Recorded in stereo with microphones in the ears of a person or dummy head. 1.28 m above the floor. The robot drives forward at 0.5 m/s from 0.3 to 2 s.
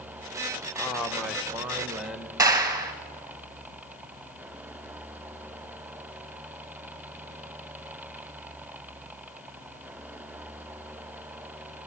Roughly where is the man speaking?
Centre.